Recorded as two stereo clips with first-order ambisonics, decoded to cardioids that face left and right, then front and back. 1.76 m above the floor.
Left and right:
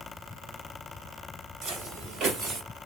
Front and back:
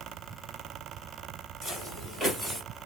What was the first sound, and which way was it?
Footsteps, 70° right.